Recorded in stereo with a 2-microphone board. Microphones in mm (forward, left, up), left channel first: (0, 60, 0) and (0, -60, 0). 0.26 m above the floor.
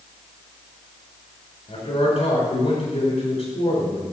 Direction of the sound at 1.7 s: 60° left (ahead or behind).